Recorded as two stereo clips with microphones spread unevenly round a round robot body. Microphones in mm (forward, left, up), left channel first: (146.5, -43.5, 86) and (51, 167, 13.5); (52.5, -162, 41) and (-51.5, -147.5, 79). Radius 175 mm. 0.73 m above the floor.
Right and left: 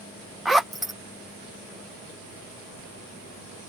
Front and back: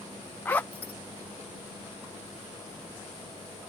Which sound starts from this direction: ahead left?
A zipper, at 0.5 s.